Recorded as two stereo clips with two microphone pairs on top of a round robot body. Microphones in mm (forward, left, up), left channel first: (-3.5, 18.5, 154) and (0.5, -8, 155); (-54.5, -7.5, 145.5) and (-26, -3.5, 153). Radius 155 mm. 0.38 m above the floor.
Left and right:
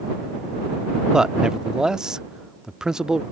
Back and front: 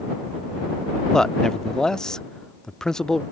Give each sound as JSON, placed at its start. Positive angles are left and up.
{"t": 1.1, "sound": "a man speaking", "azimuth_deg": -140}